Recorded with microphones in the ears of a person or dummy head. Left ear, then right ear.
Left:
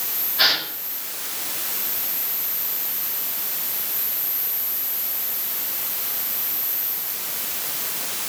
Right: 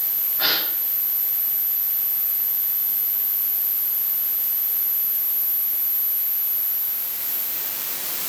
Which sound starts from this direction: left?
A gasp, at 0.4 s.